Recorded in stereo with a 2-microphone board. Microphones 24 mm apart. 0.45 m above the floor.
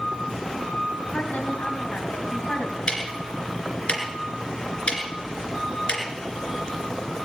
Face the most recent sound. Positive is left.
turn(degrees=50)  # may be behind; listen again after turning